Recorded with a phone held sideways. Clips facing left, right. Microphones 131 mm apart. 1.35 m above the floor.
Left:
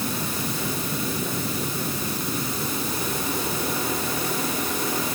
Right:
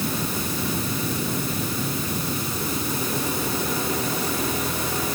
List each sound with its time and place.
Only background noise.